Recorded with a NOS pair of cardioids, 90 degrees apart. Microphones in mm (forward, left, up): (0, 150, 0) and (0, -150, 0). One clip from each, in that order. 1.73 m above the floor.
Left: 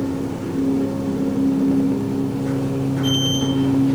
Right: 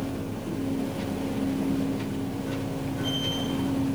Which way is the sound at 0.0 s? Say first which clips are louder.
Left 8 dB; 60° left.